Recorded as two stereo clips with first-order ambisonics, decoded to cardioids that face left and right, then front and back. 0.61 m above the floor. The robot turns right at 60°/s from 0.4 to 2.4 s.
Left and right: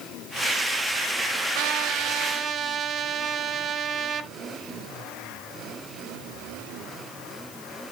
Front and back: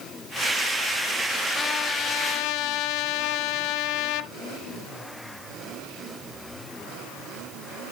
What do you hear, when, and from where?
1.6 s a trumpet: 80° right, 0.8 m; by 4.3 s 30° right, 0.8 m